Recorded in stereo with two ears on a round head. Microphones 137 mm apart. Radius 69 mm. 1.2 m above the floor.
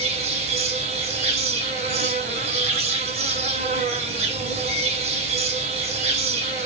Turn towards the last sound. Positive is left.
turn(degrees=-45)  # may be behind; listen again after turning